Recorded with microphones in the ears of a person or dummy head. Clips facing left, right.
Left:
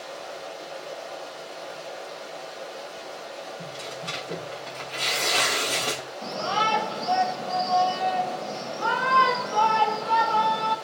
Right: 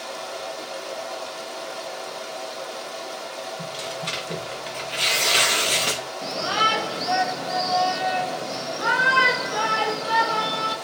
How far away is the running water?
About 1.3 m.